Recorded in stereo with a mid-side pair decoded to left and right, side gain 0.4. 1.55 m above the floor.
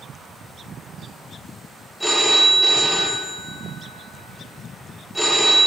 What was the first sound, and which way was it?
A phone ringing, 10° left.